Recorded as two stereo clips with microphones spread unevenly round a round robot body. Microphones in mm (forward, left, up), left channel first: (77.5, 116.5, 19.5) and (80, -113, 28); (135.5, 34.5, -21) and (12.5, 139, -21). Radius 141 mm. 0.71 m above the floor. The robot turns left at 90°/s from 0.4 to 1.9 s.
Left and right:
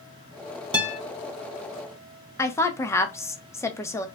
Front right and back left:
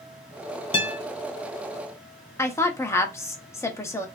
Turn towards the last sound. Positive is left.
turn(degrees=20)